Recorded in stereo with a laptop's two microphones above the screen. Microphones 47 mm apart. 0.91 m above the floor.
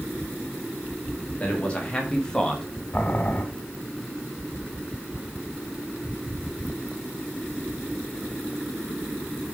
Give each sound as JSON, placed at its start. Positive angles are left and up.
{"t": 1.4, "sound": "a man speaking", "side_deg": 25, "distance_m": 1.8}
{"t": 2.9, "sound": "boiling", "side_deg": 35, "distance_m": 1.4}